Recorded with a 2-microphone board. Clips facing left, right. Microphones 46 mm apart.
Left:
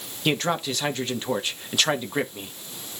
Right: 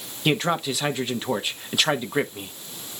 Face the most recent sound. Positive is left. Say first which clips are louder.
# right 2 dB
turn(degrees=-5)  # may be behind; listen again after turning